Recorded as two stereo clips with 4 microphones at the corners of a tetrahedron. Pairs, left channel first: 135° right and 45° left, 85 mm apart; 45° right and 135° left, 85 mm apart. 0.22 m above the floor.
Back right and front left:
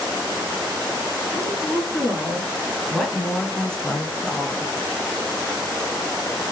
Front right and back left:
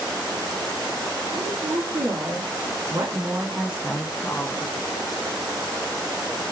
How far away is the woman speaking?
About 3.5 m.